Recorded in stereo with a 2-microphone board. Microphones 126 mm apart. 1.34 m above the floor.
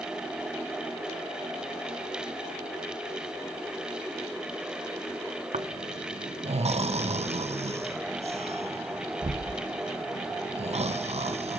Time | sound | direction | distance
5.5 | snoring | 65° right (ahead or behind) | 0.6 m